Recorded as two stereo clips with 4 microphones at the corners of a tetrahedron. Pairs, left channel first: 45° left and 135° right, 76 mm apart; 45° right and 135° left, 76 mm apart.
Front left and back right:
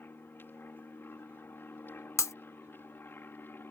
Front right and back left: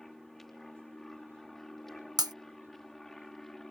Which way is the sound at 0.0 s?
35° left.